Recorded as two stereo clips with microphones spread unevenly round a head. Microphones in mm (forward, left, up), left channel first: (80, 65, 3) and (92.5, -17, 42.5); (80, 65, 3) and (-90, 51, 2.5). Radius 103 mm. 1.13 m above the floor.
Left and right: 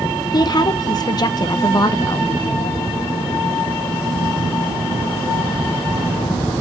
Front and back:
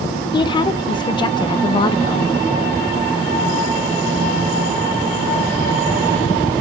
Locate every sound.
0.3 s a woman speaking: 70° left, 0.7 m